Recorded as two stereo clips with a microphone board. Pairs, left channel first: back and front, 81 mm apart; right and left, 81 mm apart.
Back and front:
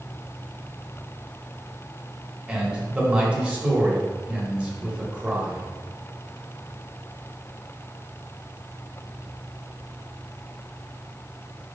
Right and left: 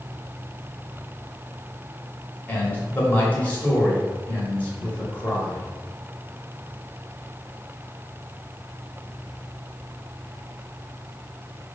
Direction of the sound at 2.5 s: 60° right.